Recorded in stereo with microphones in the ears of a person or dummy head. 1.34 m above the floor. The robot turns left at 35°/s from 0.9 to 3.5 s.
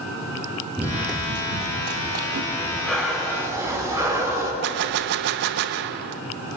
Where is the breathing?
20° left, 4.5 m; by 4.5 s 15° right, 4.5 m.